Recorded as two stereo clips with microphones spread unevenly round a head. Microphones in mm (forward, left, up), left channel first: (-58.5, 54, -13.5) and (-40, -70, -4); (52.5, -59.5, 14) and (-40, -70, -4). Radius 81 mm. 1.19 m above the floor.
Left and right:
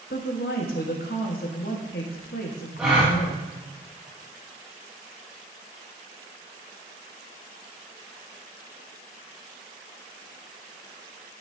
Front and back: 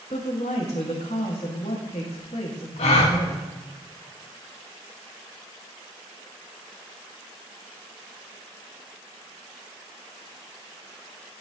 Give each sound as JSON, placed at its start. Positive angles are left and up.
{"t": 0.1, "sound": "a woman speaking", "azimuth_deg": 60, "distance_m": 1.7}
{"t": 2.8, "sound": "a gasp", "azimuth_deg": 5, "distance_m": 1.5}